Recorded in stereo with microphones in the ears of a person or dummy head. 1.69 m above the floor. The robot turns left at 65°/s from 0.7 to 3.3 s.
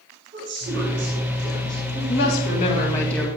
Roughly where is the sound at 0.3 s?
Behind right.